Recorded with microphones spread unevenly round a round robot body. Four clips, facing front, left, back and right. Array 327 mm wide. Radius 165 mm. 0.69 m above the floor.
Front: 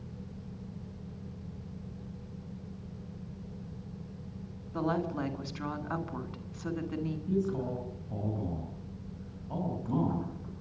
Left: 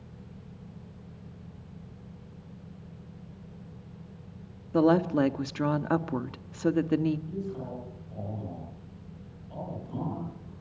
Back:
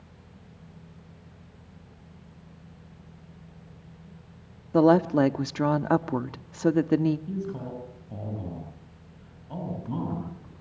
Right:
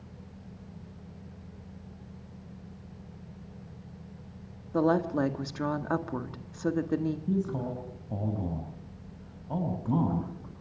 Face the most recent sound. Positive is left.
turn(degrees=-100)